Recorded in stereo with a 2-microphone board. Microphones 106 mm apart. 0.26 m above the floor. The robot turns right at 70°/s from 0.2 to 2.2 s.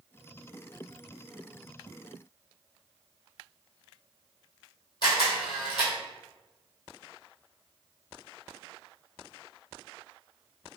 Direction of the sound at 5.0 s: 45° left (ahead or behind).